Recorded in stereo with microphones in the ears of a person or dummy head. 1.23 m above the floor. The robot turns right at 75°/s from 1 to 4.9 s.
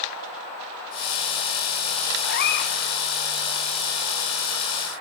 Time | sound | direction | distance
2.2 | a cat meowing | 85° left | 0.9 m